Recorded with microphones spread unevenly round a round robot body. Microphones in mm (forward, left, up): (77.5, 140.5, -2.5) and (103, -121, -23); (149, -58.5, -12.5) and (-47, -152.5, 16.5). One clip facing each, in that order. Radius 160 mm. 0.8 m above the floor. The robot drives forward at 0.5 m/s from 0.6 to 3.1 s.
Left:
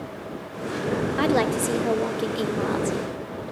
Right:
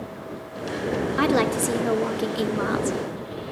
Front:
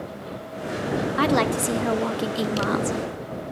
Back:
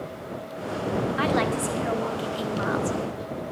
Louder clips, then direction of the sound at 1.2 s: Right 1 dB, front 6 dB; 5° right.